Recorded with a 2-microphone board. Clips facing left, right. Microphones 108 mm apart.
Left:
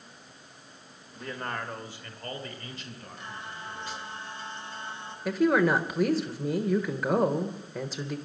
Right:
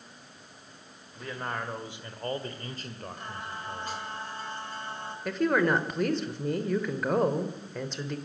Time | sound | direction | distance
1.1 | a man speaking | centre (ahead or behind) | 1.7 m
3.2 | singing | 45° right (ahead or behind) | 2 m
5.2 | a woman speaking | 5° left (ahead or behind) | 1.1 m